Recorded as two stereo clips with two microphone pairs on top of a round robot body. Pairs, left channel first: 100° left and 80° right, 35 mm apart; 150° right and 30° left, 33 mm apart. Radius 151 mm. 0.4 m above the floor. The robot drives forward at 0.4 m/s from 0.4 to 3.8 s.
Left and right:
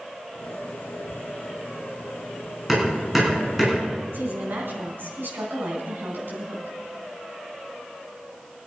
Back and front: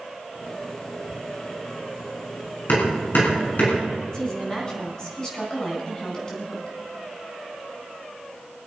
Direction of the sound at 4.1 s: 85° right.